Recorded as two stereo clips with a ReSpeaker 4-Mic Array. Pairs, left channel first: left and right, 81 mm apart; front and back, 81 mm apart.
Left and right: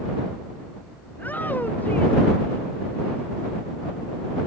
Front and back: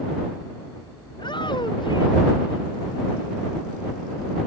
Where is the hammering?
No hammering in this recording.